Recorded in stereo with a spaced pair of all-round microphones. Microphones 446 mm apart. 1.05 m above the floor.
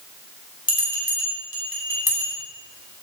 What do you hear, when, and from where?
0.7 s a bell: 50° left (ahead or behind), 6 m